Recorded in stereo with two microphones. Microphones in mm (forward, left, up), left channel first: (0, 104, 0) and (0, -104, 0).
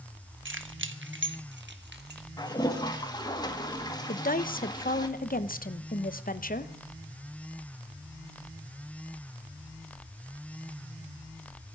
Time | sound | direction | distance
0.5 | keys jangling | 75° right (ahead or behind) | 1.3 m
2.4 | a toilet flushing | 20° left (ahead or behind) | 1.7 m
4.1 | a woman speaking | 45° left (ahead or behind) | 0.9 m